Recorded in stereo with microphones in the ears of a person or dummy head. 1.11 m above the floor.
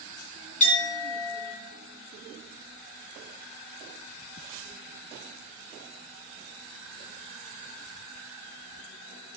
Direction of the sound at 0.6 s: 40° left (ahead or behind).